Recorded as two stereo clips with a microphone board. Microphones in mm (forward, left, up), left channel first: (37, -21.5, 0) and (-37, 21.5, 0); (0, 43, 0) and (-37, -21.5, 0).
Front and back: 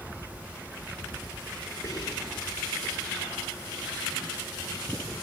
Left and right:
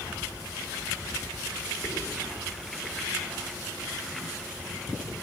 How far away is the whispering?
About 6 m.